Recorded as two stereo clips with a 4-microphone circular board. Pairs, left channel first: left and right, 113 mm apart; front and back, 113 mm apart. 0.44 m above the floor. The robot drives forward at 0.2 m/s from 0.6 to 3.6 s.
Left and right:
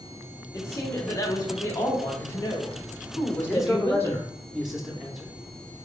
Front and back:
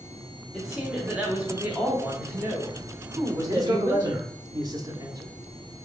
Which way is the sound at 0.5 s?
100° left.